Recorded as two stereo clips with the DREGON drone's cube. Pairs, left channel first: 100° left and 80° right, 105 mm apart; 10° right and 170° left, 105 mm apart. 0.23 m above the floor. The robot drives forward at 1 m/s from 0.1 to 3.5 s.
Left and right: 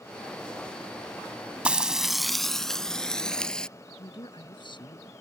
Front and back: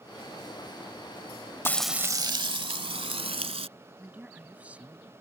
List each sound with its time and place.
1.6 s frying: 20° right; by 3.7 s straight behind
4.0 s a man speaking: 95° left